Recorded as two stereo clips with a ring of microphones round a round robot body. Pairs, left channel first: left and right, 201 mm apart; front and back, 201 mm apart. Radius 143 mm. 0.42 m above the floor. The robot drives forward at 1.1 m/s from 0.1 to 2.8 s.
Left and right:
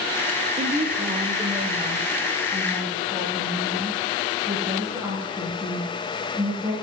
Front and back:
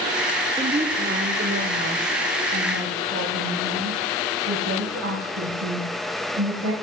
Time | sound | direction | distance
0.6 | a woman speaking | 120° right | 0.8 m